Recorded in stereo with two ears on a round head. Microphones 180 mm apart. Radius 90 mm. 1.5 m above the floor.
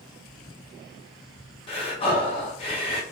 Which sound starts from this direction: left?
Breathing, at 1.7 s.